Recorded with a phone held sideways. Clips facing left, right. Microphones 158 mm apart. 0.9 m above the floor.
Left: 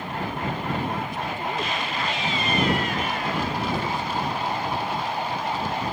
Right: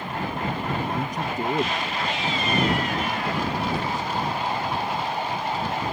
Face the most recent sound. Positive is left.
turn(degrees=-40)  # may be behind; listen again after turning